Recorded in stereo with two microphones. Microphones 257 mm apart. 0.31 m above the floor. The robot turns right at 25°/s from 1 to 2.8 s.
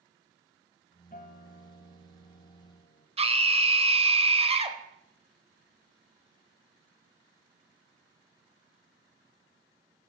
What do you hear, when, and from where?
1.1 s a guitar: 45° left, 1.2 m; by 3.1 s 90° left, 1.2 m
3.2 s a scream: 25° right (ahead or behind), 1.0 m